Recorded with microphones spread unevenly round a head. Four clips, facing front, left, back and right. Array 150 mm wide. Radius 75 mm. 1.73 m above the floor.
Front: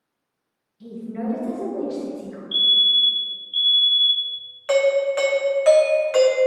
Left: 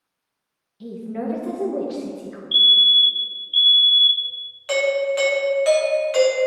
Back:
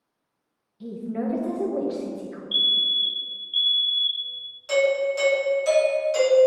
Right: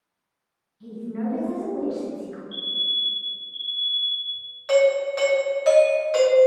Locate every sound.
0.8 s a woman speaking: 125° left, 1.6 m
2.5 s a fire alarm: 90° left, 1.0 m
4.7 s a doorbell: 5° right, 1.4 m